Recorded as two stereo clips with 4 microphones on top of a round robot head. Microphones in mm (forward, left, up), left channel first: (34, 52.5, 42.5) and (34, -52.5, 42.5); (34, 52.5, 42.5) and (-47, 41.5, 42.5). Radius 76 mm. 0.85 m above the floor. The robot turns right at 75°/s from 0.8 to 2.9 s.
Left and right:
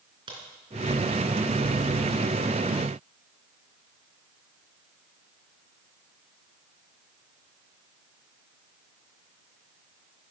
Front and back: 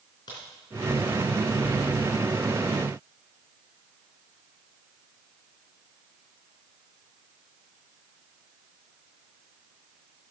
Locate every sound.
0.3 s a crack: 45° right, 3.5 m